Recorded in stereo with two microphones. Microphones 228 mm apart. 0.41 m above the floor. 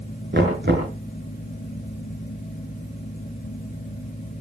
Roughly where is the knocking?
Right.